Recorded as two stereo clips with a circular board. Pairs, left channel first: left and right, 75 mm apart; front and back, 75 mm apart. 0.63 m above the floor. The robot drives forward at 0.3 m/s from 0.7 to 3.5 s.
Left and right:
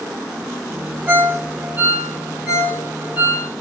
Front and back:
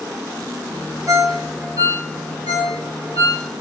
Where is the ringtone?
145° right, 0.9 m; by 3.5 s 165° right, 1.5 m.